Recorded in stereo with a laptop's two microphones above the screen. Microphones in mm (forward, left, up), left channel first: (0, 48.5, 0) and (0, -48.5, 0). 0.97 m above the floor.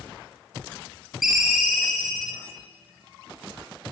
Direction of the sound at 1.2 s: 5° right (ahead or behind).